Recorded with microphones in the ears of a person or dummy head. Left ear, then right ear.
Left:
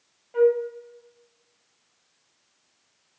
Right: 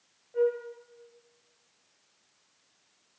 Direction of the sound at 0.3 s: 35° left (ahead or behind).